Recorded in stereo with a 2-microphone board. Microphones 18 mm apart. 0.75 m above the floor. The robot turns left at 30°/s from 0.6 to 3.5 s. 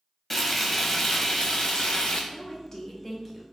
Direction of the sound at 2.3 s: 40° left.